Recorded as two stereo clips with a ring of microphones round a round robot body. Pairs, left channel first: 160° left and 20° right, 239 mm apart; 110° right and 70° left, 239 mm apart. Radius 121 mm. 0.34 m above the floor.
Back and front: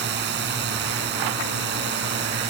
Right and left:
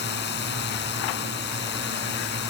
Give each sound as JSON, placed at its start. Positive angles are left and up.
{"t": 0.0, "sound": "a drone", "azimuth_deg": -65}